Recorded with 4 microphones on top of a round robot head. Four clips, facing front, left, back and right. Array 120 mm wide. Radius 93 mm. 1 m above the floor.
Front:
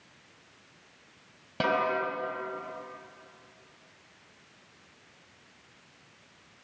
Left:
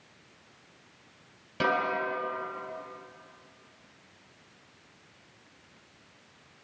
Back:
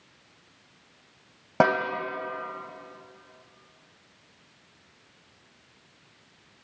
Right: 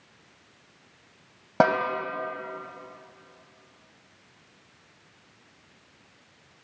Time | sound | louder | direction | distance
1.6 | a snare drum | right 6 dB, back 5 dB | 130° right | 3.5 m